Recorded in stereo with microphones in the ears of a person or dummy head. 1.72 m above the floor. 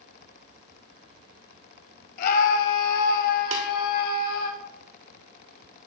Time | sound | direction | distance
2.2 | a scream | 50° left (ahead or behind) | 1.5 m
3.5 | tapping | 40° right (ahead or behind) | 1.8 m